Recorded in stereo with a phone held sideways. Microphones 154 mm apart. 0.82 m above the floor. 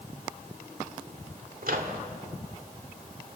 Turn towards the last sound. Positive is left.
turn(degrees=-65)  # may be behind; listen again after turning